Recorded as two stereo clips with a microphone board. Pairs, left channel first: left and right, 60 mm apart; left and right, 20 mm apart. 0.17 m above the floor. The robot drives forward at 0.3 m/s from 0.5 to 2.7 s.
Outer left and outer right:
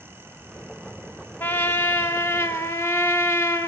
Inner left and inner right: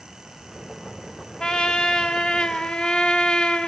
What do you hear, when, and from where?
1.4 s a trumpet: 45° left (ahead or behind), 1.2 m; by 3.7 s 60° left (ahead or behind), 1.0 m